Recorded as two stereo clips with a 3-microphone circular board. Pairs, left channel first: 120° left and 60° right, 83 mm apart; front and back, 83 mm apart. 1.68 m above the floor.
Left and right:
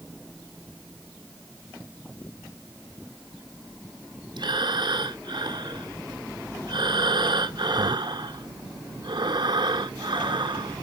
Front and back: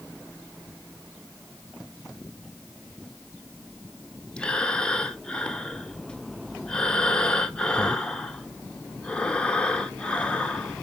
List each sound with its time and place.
4.4 s breathing: 80° right, 0.9 m